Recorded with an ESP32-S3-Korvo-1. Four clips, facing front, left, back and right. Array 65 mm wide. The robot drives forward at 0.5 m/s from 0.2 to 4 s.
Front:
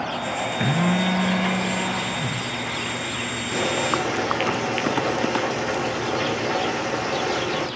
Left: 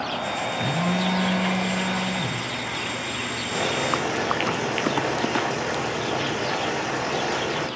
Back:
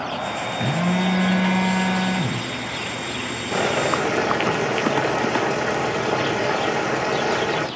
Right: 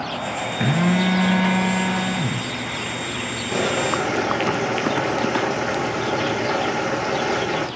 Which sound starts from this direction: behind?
Boiling, at 3.5 s.